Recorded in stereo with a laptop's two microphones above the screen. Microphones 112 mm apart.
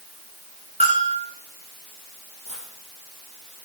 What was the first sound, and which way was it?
A bell, 70° right (ahead or behind).